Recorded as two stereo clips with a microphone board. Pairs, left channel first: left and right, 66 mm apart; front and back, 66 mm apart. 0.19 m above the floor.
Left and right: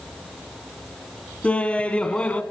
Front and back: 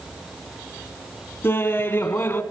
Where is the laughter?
30° left, 1.4 m.